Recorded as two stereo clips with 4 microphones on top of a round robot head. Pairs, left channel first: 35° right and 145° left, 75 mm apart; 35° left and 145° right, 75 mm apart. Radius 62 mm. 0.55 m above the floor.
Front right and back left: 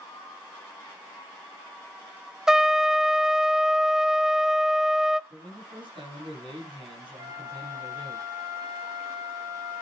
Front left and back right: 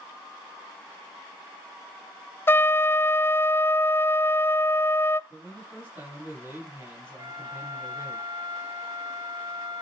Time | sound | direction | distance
2.5 | a trumpet | 70° left | 0.6 m
5.3 | a man speaking | 150° left | 7 m
7.2 | a flute | straight behind | 3.5 m